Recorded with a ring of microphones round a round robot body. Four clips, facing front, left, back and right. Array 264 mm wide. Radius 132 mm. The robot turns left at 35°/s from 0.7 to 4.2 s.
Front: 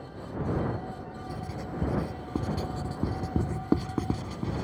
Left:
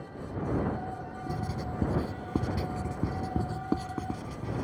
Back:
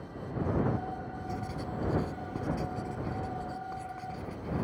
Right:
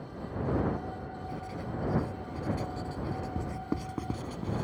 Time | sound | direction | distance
1.3 | writing | 95° left | ?